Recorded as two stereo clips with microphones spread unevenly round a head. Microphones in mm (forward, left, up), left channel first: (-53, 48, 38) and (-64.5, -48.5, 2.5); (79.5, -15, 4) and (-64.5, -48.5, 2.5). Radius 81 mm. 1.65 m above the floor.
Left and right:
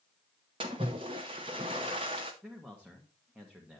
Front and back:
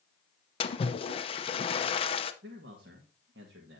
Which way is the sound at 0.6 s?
30° right.